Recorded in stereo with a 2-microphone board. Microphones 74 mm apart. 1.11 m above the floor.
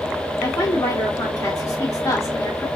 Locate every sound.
0.4 s a woman speaking: 40° left (ahead or behind), 2 m